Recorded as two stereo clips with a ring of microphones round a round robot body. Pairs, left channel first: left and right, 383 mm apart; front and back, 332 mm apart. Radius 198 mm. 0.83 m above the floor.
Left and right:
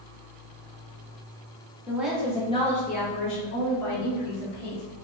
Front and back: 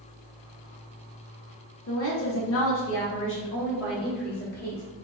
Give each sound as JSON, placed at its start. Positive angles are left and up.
{"t": 1.9, "sound": "a woman speaking", "azimuth_deg": -10, "distance_m": 1.2}